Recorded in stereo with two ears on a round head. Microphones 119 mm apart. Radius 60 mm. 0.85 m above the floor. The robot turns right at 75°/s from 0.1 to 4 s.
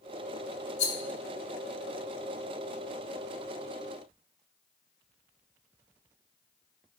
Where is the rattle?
60° left (ahead or behind), 0.7 m; by 1.0 s 50° left (ahead or behind), 0.7 m.